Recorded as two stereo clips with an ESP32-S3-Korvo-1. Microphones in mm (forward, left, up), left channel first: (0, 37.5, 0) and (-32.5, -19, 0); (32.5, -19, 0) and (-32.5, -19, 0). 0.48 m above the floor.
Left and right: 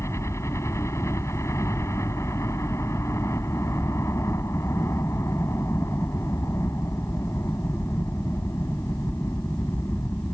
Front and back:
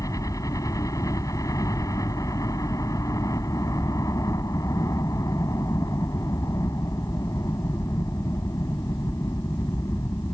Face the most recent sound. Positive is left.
turn(degrees=20)